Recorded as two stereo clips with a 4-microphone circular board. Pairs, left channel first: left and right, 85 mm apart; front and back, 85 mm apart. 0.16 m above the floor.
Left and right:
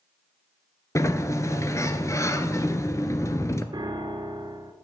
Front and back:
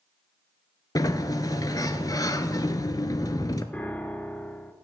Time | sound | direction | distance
0.9 | a sliding door | 40° left | 0.5 m
3.7 | a piano | 70° right | 0.6 m